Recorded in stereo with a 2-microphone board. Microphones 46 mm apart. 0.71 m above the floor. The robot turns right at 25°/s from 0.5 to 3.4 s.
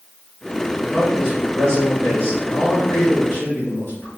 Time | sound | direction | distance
0.8 | a man speaking | 5° left | 1.5 m